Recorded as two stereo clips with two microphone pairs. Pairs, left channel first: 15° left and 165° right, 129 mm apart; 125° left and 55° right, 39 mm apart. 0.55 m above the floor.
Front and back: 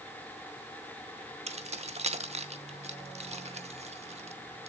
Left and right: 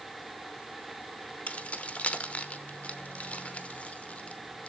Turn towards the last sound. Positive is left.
turn(degrees=170)